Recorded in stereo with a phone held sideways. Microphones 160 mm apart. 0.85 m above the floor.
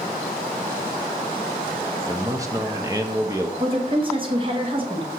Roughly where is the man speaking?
Right.